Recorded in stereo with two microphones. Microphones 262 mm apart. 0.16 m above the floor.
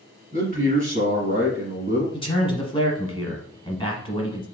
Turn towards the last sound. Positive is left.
turn(degrees=20)  # may be behind; listen again after turning